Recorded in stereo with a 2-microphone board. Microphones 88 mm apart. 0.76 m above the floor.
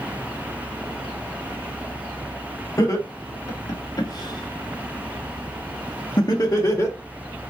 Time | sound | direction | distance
2.8 | laughter | 35° left (ahead or behind) | 2 m